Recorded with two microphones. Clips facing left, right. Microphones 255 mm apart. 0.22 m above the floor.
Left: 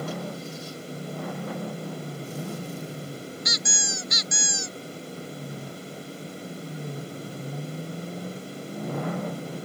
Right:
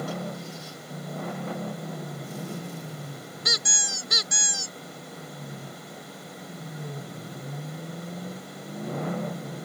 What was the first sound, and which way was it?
A squeak, 60° right (ahead or behind).